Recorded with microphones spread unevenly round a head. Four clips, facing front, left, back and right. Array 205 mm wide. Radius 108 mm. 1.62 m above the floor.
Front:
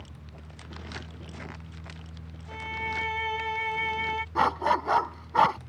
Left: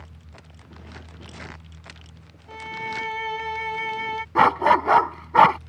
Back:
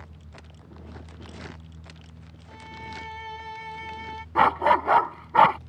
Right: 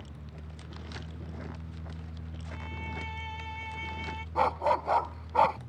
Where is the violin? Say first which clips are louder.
Left 10 dB, front 6 dB; 65° left.